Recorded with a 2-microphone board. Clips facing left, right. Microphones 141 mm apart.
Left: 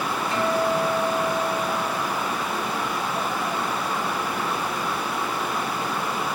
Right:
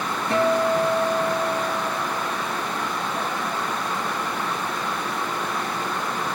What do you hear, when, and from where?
0.3 s a guitar: 80° right, 2.5 m